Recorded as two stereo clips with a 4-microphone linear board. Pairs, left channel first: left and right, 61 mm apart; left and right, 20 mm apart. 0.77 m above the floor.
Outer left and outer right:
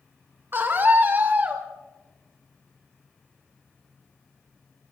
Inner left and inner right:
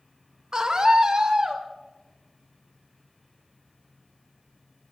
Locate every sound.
0.5 s a scream: 35° right (ahead or behind), 2.5 m; by 1.6 s 30° right (ahead or behind), 3 m